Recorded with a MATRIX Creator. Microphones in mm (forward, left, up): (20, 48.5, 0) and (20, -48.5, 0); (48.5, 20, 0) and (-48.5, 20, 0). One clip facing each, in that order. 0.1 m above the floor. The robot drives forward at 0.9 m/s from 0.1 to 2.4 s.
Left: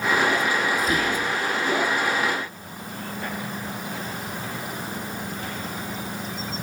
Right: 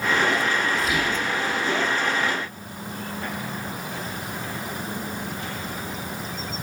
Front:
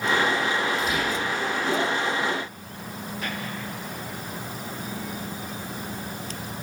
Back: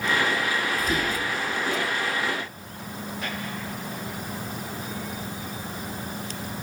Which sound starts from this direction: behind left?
Whispering, at 0.8 s.